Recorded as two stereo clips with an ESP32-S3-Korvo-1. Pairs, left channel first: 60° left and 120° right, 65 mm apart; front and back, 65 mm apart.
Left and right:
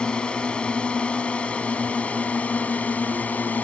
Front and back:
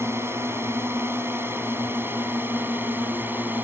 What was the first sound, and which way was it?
A drone, 135° left.